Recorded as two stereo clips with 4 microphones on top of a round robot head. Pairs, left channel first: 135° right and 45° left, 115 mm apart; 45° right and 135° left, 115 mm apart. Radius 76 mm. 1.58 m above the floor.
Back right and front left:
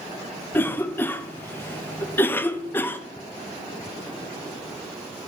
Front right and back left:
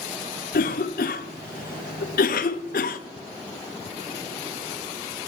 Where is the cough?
60° right, 0.6 m.